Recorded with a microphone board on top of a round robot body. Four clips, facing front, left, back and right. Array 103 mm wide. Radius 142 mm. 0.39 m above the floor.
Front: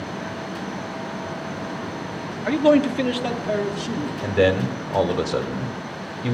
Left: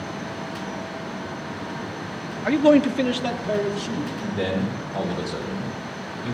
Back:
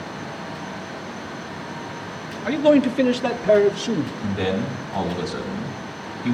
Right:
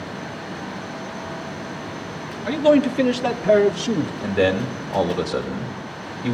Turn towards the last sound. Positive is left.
turn(degrees=-30)